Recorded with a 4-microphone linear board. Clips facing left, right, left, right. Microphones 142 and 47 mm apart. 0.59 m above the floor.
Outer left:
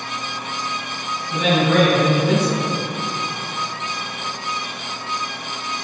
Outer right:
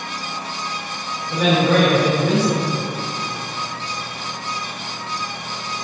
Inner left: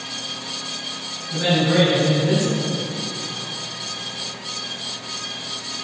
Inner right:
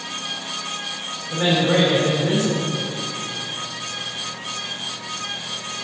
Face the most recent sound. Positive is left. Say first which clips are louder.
# outer right 1 dB, even
turn(degrees=-75)  # may be behind; listen again after turning